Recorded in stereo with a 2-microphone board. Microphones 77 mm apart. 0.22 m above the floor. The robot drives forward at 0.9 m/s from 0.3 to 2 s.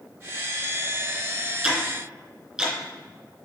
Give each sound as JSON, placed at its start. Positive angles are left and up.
{"t": 1.6, "sound": "ticking", "side_deg": -5, "distance_m": 3.0}